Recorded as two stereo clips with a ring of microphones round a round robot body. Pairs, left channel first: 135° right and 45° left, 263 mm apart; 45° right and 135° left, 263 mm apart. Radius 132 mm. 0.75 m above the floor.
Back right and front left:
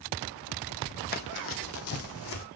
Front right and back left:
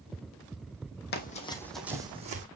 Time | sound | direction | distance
1.1 | running footsteps | 90° right | 1.3 m